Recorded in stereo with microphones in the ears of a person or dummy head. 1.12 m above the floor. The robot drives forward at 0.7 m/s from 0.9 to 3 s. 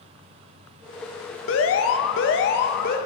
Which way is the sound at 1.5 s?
70° left (ahead or behind).